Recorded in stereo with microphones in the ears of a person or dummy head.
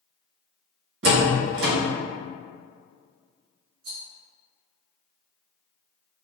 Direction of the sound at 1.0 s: 65° right (ahead or behind).